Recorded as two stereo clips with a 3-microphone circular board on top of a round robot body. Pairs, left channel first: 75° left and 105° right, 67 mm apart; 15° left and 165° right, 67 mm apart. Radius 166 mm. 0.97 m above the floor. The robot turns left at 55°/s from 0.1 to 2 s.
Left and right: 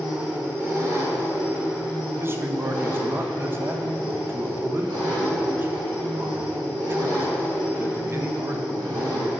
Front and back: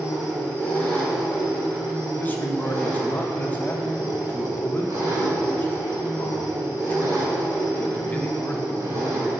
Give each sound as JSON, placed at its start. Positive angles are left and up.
{"t": 0.0, "sound": "an engine running", "azimuth_deg": -15, "distance_m": 3.0}
{"t": 2.2, "sound": "a man speaking", "azimuth_deg": -50, "distance_m": 0.8}